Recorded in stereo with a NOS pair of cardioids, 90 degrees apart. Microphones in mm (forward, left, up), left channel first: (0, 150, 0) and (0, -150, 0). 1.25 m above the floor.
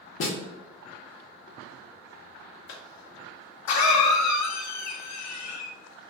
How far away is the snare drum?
About 0.8 m.